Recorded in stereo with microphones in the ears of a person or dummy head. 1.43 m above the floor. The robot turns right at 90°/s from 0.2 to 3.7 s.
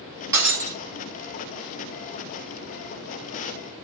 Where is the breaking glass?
15° right, 1.7 m; by 0.8 s 25° left, 1.7 m.